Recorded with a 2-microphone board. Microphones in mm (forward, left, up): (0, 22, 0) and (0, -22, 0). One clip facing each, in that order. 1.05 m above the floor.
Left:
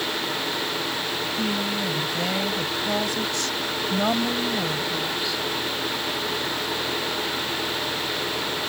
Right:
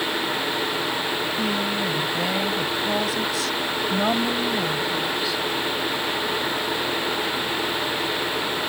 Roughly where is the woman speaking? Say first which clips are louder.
Right 2 dB; centre.